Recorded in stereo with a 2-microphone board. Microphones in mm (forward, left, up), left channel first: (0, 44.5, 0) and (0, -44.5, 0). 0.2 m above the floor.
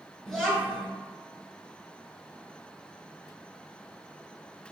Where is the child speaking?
5° left (ahead or behind), 1.5 m.